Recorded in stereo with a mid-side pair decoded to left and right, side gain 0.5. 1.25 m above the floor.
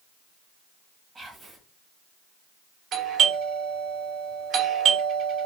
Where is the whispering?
25° right, 1.1 m.